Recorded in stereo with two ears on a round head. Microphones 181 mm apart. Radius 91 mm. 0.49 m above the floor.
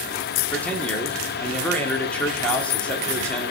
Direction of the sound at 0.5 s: 5° left (ahead or behind).